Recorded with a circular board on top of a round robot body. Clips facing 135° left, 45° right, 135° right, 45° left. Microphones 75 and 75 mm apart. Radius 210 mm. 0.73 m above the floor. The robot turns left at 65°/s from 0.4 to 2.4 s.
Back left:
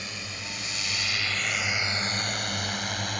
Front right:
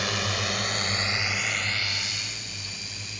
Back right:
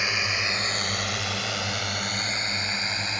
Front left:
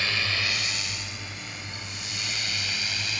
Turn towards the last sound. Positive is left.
turn(degrees=165)